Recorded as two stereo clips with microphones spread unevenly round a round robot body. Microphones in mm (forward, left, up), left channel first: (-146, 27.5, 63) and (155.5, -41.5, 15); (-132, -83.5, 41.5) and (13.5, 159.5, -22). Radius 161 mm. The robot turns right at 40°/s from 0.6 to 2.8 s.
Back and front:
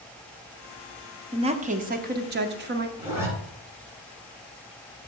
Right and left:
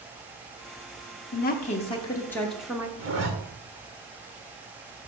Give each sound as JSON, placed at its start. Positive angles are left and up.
{"t": 1.3, "sound": "a woman speaking", "azimuth_deg": -65, "distance_m": 0.8}
{"t": 3.0, "sound": "a zipper", "azimuth_deg": 60, "distance_m": 2.0}